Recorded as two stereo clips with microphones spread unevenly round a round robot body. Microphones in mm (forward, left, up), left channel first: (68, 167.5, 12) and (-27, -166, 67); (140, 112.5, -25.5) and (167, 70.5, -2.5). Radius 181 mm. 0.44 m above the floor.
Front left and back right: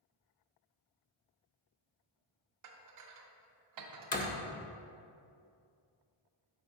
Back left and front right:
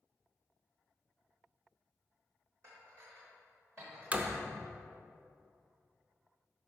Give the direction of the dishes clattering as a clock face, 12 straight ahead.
4 o'clock.